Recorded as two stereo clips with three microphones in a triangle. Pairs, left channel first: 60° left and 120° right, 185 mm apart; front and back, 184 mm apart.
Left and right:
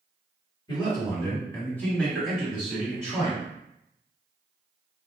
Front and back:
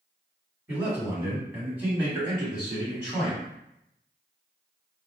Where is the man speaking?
105° left, 2.0 m; by 3.5 s 100° right, 1.6 m.